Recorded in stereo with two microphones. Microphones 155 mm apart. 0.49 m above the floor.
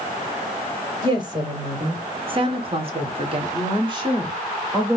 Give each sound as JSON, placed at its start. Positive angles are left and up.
{"t": 1.0, "sound": "a woman speaking", "side_deg": -30, "distance_m": 2.0}